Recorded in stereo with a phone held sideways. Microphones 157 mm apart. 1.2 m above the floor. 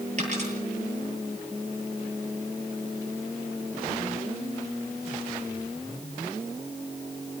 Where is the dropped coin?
50° right (ahead or behind), 9.5 m.